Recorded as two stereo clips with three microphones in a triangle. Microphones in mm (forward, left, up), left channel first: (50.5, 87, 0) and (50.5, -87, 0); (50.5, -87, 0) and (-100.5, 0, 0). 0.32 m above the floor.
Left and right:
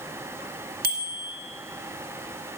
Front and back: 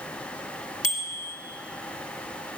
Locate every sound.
0.8 s a bicycle bell: 70° right, 2.5 m